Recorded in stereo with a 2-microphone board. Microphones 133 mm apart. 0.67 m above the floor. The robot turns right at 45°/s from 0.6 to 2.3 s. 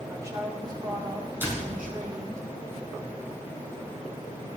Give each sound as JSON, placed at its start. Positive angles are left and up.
{"t": 0.1, "sound": "a woman speaking", "azimuth_deg": -155, "distance_m": 3.5}
{"t": 1.4, "sound": "a door slam", "side_deg": -15, "distance_m": 4.0}